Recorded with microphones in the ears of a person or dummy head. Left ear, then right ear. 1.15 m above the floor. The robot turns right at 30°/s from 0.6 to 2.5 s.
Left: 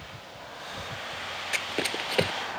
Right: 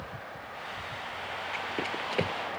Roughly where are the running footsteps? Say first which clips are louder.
Left 5 dB; left.